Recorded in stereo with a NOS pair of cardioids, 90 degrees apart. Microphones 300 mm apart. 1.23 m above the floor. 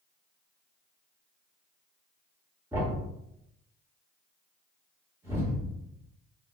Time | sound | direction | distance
2.7 | a thud | 10° right | 1.8 m